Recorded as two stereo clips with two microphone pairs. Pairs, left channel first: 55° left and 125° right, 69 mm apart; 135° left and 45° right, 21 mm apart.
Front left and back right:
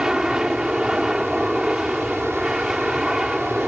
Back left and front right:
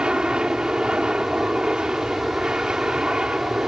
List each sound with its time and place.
0.0 s an aircraft: 50° right